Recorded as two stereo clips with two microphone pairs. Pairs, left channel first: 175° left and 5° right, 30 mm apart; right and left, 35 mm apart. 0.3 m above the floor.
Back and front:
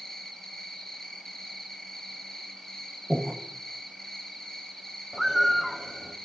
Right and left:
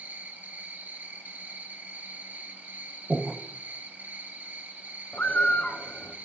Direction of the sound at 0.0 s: 105° left.